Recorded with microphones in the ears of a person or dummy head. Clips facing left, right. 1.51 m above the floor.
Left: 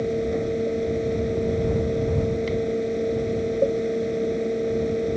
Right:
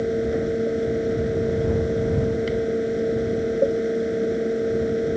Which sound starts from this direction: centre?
A fan, at 0.0 s.